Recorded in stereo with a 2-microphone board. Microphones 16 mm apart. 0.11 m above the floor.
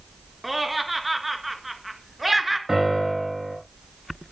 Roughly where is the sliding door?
No sliding door in this recording.